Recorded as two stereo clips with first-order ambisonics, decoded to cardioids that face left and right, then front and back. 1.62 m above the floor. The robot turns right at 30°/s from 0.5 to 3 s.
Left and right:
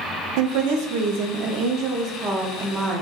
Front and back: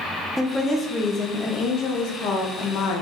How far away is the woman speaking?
About 0.5 m.